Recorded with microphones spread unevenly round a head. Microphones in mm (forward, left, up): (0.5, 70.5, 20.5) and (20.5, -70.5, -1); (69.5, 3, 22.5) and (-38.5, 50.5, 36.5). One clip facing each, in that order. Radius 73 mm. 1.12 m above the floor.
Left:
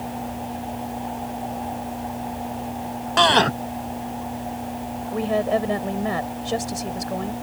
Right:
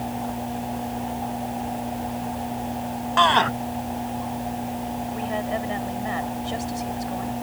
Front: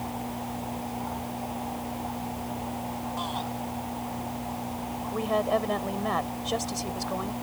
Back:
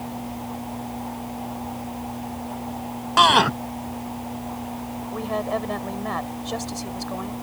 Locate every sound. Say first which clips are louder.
3.2 s a shout: left 2 dB, back 20 dB; 150° left
5.1 s a woman speaking: left 8 dB, front 1 dB; 60° left